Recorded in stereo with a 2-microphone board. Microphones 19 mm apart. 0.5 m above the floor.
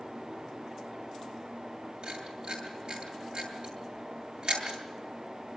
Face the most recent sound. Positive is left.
turn(degrees=-50)  # may be behind; listen again after turning